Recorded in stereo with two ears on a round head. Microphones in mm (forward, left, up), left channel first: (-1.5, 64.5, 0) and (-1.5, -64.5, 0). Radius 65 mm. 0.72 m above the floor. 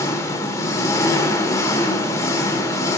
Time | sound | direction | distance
0.0 | an engine running | 20° left (ahead or behind) | 0.9 m